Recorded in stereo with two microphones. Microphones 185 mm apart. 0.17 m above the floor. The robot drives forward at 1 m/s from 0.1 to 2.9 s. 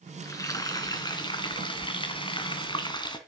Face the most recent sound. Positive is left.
turn(degrees=25)  # may be behind; listen again after turning